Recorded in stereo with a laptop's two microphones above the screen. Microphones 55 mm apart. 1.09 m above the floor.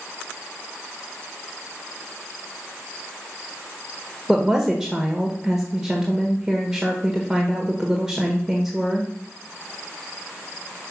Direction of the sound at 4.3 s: 5° right (ahead or behind).